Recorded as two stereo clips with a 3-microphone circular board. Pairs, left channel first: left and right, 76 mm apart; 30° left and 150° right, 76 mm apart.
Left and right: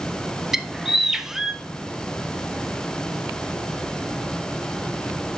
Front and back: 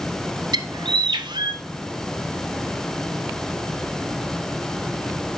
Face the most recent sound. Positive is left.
turn(degrees=-175)